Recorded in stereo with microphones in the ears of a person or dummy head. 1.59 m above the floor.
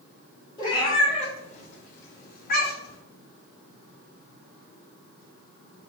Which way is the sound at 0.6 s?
20° left (ahead or behind).